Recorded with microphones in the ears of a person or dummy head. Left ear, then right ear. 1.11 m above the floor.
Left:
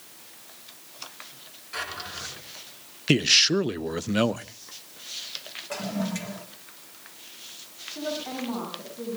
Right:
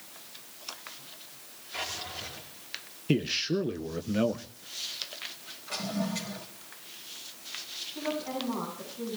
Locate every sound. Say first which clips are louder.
1.7 s a drawer: left 2 dB; 80° left, 5 m
3.1 s a man speaking: left 9 dB; 35° left (ahead or behind), 0.5 m
5.7 s a toilet flushing: left 1 dB; 20° left (ahead or behind), 1.6 m
8.0 s a woman speaking: left 2 dB; 85° left, 9 m